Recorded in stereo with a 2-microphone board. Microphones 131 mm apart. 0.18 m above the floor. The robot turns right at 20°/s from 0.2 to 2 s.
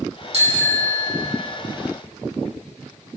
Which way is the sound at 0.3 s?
50° right (ahead or behind).